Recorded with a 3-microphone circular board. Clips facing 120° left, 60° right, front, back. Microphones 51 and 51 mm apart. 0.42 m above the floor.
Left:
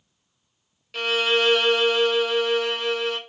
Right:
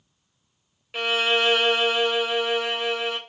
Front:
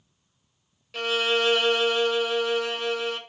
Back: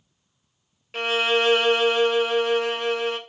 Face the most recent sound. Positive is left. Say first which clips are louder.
# left 1 dB, back 3 dB
turn(degrees=-130)